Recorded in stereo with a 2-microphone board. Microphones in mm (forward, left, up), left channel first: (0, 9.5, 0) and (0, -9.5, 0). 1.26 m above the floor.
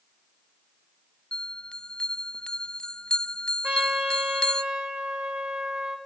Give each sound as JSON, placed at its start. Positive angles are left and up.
{"t": 1.3, "sound": "a bell", "side_deg": 50, "distance_m": 0.8}
{"t": 3.6, "sound": "a trumpet", "side_deg": -85, "distance_m": 4.5}